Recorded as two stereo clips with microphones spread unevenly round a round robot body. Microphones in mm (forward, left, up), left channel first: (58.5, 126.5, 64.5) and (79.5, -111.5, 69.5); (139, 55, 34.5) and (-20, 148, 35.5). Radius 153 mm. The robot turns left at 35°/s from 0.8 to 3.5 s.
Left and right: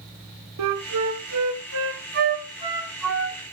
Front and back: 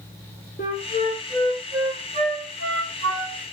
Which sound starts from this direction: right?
A flute, at 0.6 s.